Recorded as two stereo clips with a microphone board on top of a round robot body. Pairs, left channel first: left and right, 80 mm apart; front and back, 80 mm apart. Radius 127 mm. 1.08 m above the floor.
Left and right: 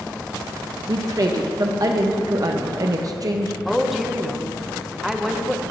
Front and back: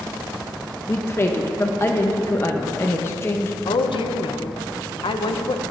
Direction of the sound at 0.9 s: 55° right.